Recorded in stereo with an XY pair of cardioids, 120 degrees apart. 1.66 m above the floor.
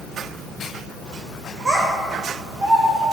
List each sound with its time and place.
1.6 s a child speaking: 20° right, 1.4 m; by 3.0 s 10° right, 3.5 m